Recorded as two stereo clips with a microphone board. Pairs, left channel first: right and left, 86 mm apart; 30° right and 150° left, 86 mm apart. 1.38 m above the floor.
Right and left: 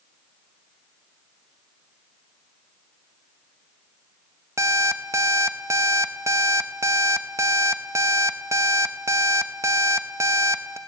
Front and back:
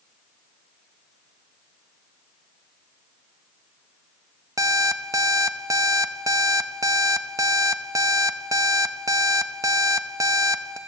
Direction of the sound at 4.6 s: 125° left.